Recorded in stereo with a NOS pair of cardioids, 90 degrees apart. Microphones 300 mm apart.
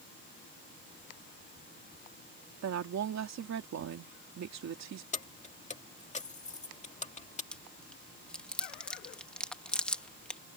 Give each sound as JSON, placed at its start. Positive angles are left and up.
{"t": 2.6, "sound": "a woman speaking", "azimuth_deg": -55}
{"t": 5.1, "sound": "keys jangling", "azimuth_deg": 20}
{"t": 7.5, "sound": "chewing", "azimuth_deg": 5}